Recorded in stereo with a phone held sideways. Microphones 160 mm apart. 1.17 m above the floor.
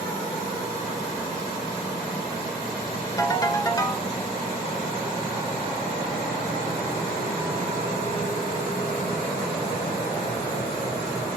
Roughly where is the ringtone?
Left.